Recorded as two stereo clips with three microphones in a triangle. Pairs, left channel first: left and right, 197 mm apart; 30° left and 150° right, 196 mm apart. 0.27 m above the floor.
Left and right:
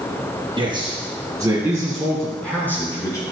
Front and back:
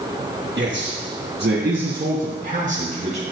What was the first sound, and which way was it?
A man speaking, 155° right.